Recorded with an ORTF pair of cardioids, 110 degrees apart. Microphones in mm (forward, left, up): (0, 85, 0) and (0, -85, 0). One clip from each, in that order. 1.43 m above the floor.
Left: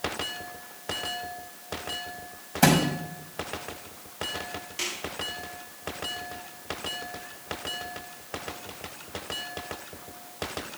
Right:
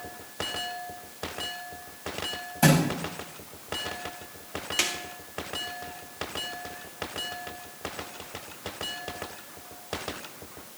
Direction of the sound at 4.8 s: 55° right.